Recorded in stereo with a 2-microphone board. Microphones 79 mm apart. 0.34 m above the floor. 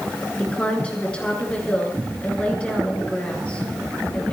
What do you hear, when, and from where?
0.4 s a woman speaking: 15° left (ahead or behind), 4.5 m